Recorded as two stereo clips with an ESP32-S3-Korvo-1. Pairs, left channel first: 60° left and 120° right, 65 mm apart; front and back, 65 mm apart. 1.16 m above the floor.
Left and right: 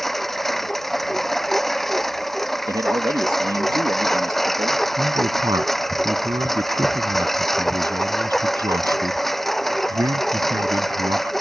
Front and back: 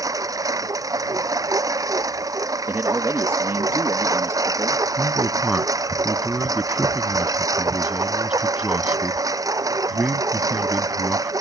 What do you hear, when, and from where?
0.0 s a lawn mower: 145° left
2.7 s a man speaking: 130° right
5.0 s a man speaking: 105° right